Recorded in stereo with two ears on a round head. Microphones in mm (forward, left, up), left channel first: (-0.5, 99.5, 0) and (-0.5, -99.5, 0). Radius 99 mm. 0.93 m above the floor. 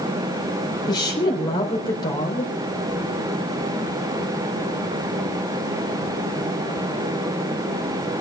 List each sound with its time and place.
0.9 s a woman speaking: 20° left (ahead or behind), 4 m